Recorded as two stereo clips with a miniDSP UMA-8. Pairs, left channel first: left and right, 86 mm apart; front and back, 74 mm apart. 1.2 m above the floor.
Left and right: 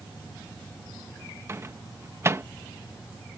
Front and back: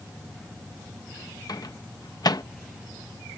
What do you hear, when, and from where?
1.5 s a microwave: 30° right